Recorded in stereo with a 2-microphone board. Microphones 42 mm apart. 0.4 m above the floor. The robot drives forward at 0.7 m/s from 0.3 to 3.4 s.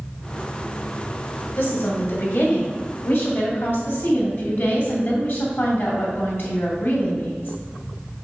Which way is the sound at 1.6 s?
60° left (ahead or behind).